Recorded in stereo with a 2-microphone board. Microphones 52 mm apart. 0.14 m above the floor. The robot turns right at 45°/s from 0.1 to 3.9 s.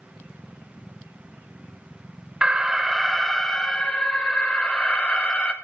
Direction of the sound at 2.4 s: 30° right.